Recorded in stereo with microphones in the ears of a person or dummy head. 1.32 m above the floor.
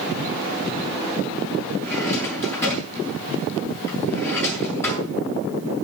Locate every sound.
1.8 s a drawer: 15° left (ahead or behind), 9 m